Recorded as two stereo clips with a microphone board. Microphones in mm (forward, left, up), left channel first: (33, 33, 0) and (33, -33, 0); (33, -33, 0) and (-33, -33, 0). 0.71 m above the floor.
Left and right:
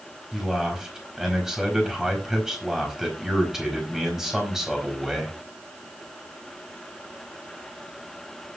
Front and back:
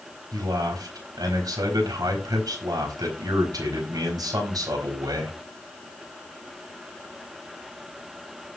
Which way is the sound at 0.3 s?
175° right.